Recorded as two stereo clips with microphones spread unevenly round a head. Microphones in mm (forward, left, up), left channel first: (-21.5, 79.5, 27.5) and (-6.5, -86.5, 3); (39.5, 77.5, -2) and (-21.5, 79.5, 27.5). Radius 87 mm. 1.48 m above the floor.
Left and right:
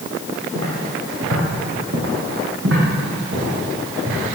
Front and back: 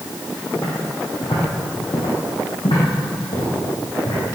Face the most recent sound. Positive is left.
turn(degrees=-40)